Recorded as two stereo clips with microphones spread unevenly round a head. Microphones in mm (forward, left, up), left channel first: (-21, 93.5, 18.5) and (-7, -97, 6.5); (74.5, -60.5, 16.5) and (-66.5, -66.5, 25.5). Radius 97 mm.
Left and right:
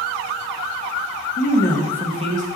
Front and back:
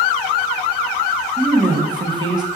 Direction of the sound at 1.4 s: 115° left.